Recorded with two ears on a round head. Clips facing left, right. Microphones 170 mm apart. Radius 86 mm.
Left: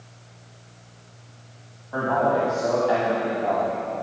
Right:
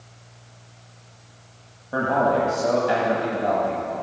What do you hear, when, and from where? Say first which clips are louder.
1.9 s a man speaking: right 1 dB; 35° right (ahead or behind), 1.3 m